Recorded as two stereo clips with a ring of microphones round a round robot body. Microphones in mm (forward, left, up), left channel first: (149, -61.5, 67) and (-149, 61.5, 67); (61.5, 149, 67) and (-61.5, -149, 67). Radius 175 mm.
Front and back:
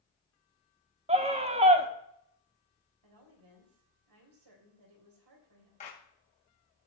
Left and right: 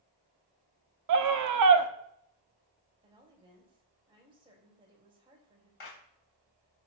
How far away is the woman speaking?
About 3.5 m.